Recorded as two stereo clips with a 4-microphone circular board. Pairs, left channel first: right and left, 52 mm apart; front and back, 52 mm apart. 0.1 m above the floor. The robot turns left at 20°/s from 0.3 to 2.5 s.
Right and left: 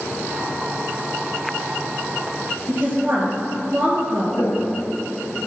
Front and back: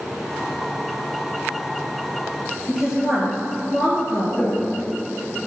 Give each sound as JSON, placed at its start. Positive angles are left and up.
{"t": 2.7, "sound": "a woman speaking", "azimuth_deg": 105, "distance_m": 2.0}
{"t": 4.3, "sound": "footsteps", "azimuth_deg": -90, "distance_m": 1.5}